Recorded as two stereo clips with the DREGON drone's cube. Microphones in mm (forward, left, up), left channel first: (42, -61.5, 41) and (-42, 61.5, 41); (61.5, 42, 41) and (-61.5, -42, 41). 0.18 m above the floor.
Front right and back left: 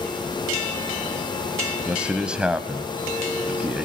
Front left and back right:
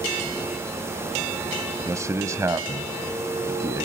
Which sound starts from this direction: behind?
A man speaking, at 1.9 s.